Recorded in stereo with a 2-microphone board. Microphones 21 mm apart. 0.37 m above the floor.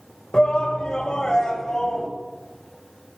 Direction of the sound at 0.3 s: 45° left (ahead or behind).